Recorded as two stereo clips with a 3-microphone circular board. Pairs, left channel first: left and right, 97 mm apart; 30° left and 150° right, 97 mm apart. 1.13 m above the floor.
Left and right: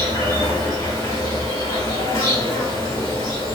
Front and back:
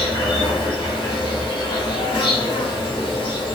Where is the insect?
45° left, 2.5 m.